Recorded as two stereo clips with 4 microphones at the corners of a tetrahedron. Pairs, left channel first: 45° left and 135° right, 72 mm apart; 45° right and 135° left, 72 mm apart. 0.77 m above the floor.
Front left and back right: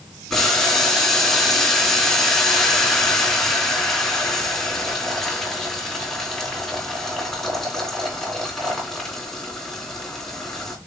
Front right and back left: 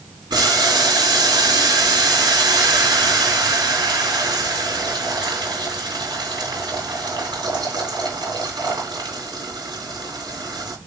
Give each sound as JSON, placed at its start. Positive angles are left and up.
{"t": 0.3, "sound": "boiling", "azimuth_deg": 130, "distance_m": 3.5}